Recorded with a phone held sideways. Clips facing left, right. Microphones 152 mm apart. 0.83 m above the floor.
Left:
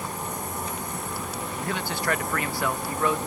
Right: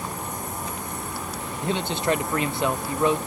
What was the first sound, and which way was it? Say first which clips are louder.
A man speaking: right 5 dB; 20° right (ahead or behind).